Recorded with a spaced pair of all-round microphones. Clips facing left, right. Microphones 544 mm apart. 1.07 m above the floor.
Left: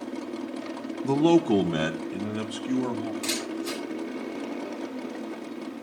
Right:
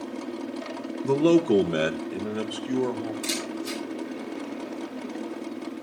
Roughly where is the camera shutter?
Left.